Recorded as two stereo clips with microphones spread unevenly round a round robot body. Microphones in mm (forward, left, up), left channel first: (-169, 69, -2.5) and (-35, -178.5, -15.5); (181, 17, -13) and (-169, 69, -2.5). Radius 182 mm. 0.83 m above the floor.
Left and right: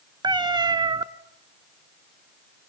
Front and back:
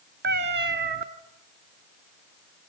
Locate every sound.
0.2 s a cat meowing: 135° right, 1.1 m